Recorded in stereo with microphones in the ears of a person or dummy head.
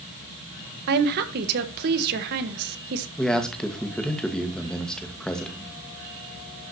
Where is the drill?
No drill in this recording.